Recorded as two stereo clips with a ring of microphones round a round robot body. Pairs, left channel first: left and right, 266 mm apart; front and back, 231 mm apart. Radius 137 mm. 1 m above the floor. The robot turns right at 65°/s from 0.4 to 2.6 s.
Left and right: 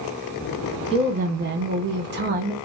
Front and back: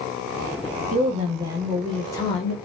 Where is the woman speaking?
150° right, 0.9 m; by 2.5 s 45° right, 0.9 m.